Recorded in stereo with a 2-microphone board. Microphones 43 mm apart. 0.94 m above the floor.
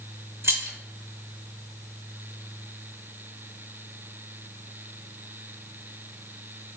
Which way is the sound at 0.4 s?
70° right (ahead or behind).